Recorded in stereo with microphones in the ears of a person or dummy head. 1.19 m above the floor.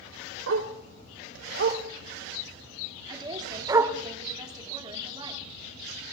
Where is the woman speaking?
25° right (ahead or behind), 2.5 m.